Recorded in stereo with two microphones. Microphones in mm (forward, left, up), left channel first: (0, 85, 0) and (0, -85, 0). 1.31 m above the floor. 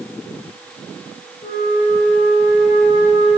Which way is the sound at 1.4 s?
55° left (ahead or behind).